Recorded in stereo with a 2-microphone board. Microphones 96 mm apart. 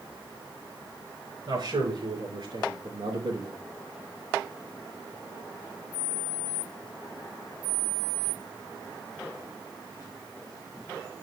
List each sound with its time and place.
1.5 s a man speaking: 55° right (ahead or behind), 6 m; by 3.6 s 65° right (ahead or behind), 5.5 m